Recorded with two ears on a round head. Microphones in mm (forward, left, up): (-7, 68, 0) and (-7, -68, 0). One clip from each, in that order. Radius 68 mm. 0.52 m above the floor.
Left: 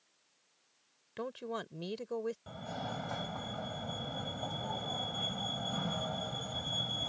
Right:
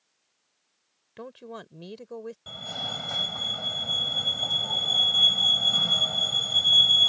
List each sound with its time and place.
1.2 s a woman speaking: 5° left (ahead or behind)
2.5 s a fire alarm: 65° right (ahead or behind)